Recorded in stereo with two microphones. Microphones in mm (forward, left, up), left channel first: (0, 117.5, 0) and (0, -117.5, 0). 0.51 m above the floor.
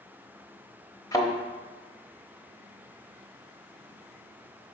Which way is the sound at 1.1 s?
15° left (ahead or behind).